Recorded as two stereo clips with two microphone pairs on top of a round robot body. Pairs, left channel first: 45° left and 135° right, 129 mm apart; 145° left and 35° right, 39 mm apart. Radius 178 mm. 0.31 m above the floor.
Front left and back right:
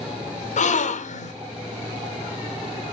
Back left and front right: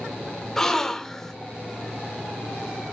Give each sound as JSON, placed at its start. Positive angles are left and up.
{"t": 0.6, "sound": "a gasp", "azimuth_deg": 65, "distance_m": 0.6}